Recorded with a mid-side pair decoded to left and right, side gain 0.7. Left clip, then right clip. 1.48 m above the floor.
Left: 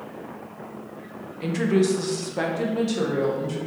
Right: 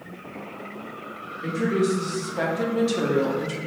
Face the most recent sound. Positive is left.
turn(degrees=-30)